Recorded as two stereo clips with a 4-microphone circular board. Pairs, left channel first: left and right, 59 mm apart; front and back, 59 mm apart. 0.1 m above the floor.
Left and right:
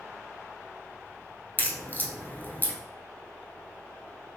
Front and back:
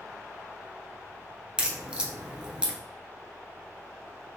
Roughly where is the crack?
Behind left.